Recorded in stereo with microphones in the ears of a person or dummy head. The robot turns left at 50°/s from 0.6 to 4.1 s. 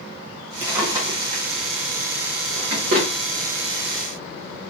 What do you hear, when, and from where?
0.6 s a drawer: 15° right (ahead or behind), 1.1 m; by 3.1 s 40° right (ahead or behind), 1.1 m